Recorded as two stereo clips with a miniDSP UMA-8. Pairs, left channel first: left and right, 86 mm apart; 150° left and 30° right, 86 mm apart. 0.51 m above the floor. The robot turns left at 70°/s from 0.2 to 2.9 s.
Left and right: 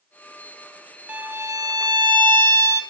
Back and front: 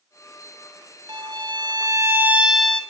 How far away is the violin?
About 1.2 m.